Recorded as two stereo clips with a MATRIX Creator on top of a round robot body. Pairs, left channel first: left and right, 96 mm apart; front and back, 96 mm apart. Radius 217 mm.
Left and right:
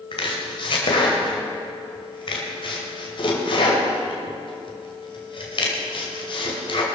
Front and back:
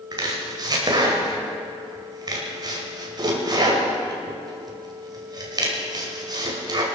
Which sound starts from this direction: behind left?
Chopping, at 0.1 s.